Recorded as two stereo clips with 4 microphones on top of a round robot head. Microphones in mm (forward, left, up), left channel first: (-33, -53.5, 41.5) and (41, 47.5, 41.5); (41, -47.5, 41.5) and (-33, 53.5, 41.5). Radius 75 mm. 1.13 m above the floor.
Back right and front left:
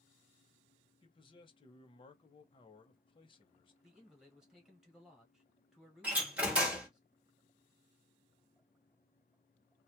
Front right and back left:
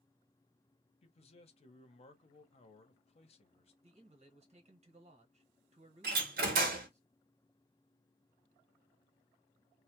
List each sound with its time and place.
1.0 s a man speaking: 85° right, 0.8 m
3.8 s a man speaking: 140° left, 1.2 m
6.0 s a door slam: 135° left, 0.9 m